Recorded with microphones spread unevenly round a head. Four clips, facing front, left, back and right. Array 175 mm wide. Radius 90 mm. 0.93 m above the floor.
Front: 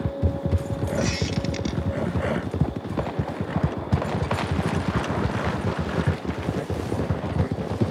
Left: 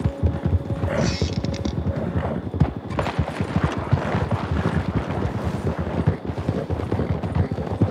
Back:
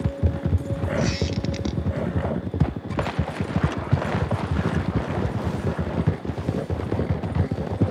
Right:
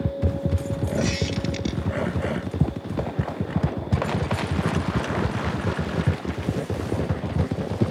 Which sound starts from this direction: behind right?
A squeak, at 1.0 s.